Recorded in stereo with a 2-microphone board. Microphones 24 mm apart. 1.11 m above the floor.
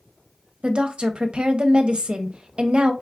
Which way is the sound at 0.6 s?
50° right (ahead or behind).